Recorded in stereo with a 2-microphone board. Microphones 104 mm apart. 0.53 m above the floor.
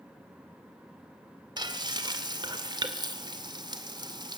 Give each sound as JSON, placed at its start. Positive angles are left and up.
{"t": 1.6, "sound": "frying", "side_deg": -45, "distance_m": 2.0}